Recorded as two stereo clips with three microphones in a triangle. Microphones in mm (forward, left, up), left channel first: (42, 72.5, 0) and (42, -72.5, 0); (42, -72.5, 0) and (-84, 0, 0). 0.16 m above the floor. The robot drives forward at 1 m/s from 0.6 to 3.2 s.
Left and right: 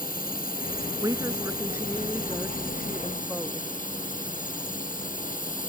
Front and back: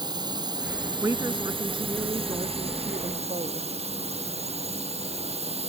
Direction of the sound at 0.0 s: 90° left.